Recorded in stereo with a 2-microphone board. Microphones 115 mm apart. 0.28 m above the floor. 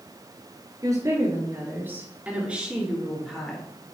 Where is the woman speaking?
30° right (ahead or behind), 4.5 m; by 3.7 s 5° left (ahead or behind), 4 m.